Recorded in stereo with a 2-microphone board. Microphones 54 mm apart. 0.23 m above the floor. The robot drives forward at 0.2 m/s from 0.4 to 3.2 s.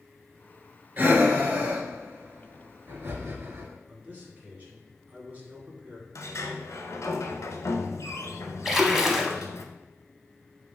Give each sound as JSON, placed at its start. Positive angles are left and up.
{"t": 1.0, "sound": "breathing", "side_deg": -40, "distance_m": 1.5}
{"t": 3.9, "sound": "a man speaking", "side_deg": -30, "distance_m": 1.5}
{"t": 6.2, "sound": "a sliding door", "side_deg": 75, "distance_m": 0.6}
{"t": 8.7, "sound": "a splash", "side_deg": -5, "distance_m": 0.6}